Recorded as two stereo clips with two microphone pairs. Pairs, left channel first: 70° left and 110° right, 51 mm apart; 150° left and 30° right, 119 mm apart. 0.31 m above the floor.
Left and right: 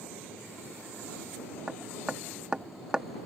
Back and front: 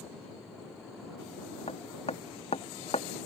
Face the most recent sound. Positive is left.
turn(degrees=180)